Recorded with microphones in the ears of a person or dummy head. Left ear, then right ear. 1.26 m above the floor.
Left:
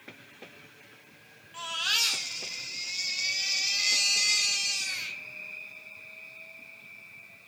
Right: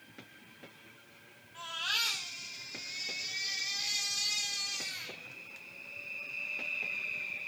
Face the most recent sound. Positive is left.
turn(degrees=40)  # may be behind; listen again after turning